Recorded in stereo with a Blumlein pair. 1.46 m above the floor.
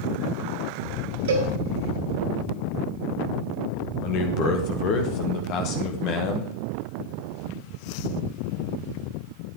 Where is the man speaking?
40° left, 1.5 m.